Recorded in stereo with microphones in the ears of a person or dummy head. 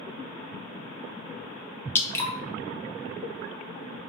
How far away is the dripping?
About 0.8 m.